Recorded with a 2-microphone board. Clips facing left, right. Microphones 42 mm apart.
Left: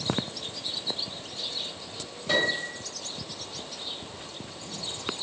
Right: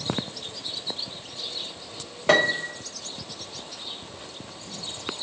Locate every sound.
2.3 s a piano: 65° right (ahead or behind), 0.9 m